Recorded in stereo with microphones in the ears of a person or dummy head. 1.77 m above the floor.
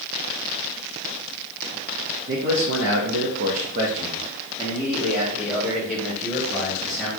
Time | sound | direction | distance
2.3 | a man speaking | 60° right (ahead or behind) | 0.8 m